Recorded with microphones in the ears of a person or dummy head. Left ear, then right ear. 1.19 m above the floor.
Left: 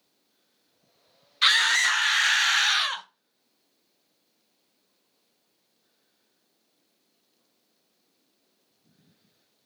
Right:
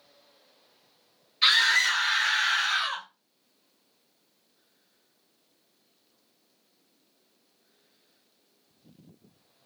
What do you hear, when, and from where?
1.4 s a scream: 45° left (ahead or behind), 0.8 m; by 3.0 s 50° left (ahead or behind), 0.6 m